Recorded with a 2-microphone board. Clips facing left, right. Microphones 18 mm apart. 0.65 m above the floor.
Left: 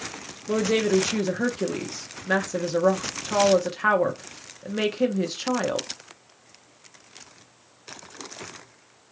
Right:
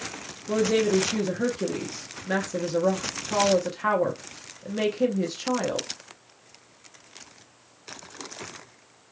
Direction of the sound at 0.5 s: 15° left (ahead or behind).